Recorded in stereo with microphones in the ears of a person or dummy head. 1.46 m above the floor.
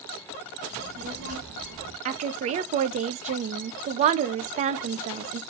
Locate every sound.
0.7 s a child speaking: 30° right (ahead or behind), 1.3 m; by 1.9 s 65° right (ahead or behind), 1.6 m
2.0 s a woman speaking: 35° right (ahead or behind), 0.5 m